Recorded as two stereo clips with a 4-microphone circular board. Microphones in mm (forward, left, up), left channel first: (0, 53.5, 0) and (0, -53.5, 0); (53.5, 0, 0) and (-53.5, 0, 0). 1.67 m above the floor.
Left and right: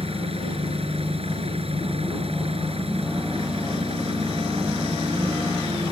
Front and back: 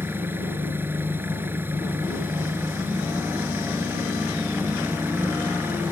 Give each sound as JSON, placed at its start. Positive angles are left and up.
{"t": 0.0, "sound": "an engine running", "azimuth_deg": -110}